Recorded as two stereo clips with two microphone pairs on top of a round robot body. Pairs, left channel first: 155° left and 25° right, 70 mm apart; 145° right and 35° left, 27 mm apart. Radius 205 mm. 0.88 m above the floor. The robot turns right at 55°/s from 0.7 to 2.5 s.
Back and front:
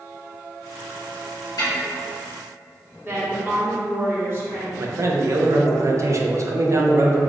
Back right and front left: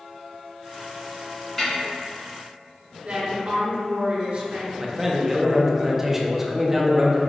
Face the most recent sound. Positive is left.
turn(degrees=-40)